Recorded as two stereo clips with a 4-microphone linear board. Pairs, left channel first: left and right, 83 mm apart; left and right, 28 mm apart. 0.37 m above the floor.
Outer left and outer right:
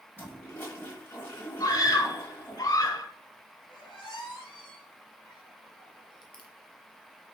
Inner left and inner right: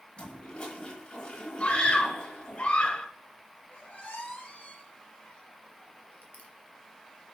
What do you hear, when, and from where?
0.2 s a toilet flushing: 30° left (ahead or behind), 3.5 m
1.6 s a scream: 50° left (ahead or behind), 1.4 m
3.7 s a squeak: 70° left (ahead or behind), 3.5 m